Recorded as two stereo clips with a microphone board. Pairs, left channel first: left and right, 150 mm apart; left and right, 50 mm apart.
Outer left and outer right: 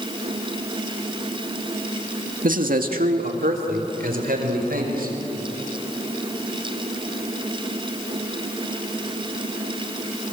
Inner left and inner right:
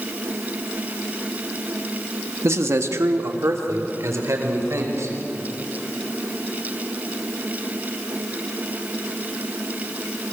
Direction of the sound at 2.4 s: 65° right (ahead or behind).